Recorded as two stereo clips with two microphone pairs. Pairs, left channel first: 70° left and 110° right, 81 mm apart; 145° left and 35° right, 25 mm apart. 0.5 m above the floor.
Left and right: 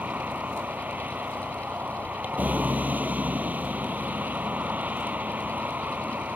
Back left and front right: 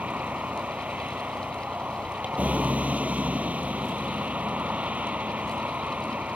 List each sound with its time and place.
0.0 s a vehicle: 40° right